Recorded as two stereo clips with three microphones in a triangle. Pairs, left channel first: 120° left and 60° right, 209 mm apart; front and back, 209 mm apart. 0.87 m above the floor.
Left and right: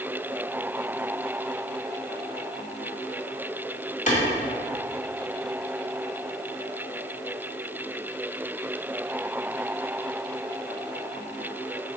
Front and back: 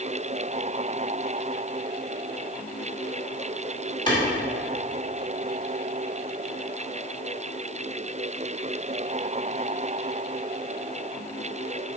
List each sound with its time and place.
4.1 s a clap: 70° left, 2.5 m